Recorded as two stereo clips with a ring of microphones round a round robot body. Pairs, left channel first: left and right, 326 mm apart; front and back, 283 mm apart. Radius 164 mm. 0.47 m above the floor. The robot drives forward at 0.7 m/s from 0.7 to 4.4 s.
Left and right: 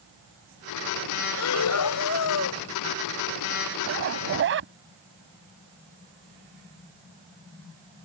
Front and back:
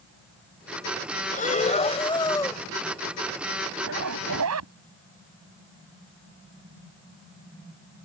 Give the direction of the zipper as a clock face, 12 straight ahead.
5 o'clock.